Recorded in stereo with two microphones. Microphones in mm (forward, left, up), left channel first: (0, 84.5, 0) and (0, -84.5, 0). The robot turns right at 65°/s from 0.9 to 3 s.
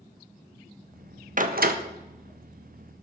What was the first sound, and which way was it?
A door slam, 55° right (ahead or behind).